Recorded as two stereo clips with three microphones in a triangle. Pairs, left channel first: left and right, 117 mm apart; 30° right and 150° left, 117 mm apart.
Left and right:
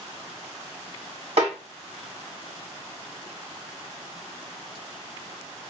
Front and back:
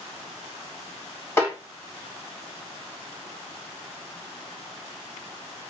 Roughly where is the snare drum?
Right.